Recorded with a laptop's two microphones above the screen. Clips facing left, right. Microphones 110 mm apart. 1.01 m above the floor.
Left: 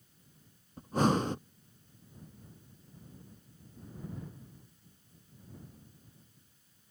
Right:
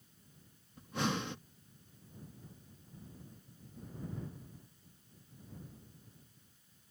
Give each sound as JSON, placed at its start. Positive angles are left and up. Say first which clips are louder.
{"t": 0.8, "sound": "breathing", "louder": "left 8 dB", "side_deg": 40}